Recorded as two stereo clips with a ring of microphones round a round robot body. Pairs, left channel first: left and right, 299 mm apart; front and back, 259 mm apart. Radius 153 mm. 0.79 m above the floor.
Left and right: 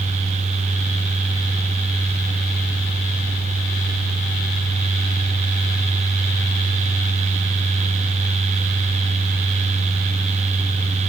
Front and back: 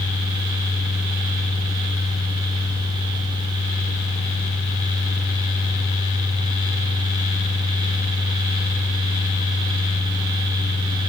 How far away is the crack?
No crack in this recording.